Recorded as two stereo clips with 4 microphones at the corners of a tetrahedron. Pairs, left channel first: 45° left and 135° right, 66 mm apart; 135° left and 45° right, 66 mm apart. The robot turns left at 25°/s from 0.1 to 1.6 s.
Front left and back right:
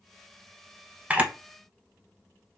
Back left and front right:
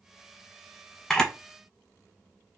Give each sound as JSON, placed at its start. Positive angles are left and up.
{"t": 1.1, "sound": "a camera shutter", "azimuth_deg": -160, "distance_m": 0.5}